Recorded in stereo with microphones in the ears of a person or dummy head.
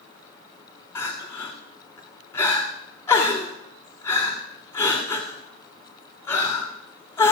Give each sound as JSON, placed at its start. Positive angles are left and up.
{"t": 0.9, "sound": "crying", "side_deg": 15, "distance_m": 2.0}